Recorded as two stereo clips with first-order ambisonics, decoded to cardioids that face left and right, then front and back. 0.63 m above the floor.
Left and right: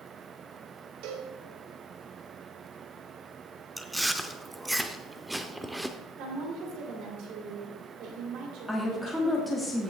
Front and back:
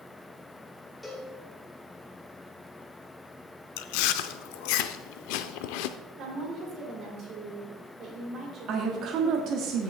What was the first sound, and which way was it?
A cowbell, 80° right.